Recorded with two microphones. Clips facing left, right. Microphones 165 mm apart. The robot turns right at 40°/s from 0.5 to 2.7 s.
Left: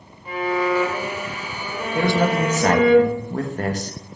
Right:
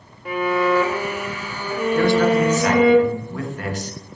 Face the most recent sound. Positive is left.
turn(degrees=45)